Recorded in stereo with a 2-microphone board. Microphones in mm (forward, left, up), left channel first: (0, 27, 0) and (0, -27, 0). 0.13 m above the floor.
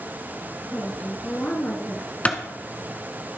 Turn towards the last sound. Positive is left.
turn(degrees=25)  # may be behind; listen again after turning